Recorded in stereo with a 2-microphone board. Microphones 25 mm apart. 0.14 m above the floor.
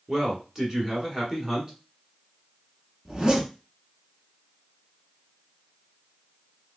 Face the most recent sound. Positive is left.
turn(degrees=-30)  # may be behind; listen again after turning